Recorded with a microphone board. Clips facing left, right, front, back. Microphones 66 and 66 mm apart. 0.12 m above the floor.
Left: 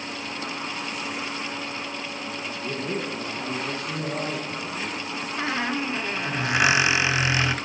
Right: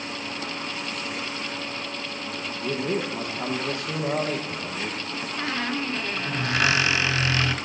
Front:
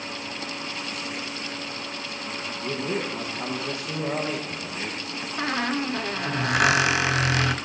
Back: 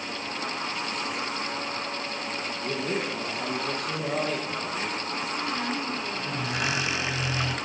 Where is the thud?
I don't hear a thud.